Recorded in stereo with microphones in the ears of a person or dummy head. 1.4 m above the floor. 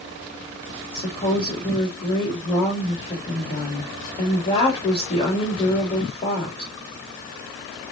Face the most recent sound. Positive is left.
turn(degrees=30)  # may be behind; listen again after turning